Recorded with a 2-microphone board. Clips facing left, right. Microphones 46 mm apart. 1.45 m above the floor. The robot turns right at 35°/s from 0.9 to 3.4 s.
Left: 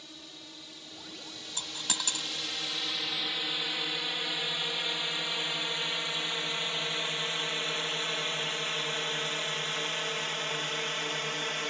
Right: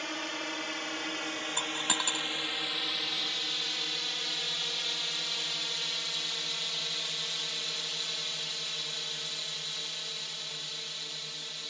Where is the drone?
70° right (ahead or behind); by 11.7 s 55° left (ahead or behind).